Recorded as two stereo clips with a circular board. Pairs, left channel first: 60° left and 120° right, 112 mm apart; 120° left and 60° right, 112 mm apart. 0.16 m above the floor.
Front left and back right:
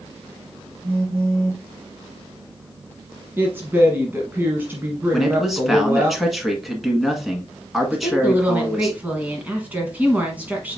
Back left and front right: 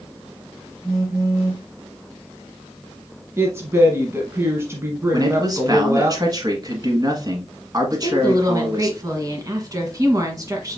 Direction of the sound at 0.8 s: 125° right.